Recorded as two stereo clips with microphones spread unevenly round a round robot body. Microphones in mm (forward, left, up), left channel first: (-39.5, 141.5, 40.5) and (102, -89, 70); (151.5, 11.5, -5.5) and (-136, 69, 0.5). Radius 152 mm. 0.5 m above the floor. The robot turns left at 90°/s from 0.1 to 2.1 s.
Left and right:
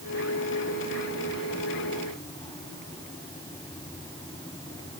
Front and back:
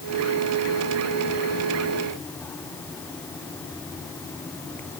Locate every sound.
Only background noise.